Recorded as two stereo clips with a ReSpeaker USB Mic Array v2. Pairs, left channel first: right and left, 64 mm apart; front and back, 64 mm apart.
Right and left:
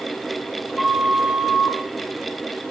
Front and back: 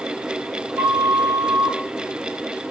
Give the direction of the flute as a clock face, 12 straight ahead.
6 o'clock.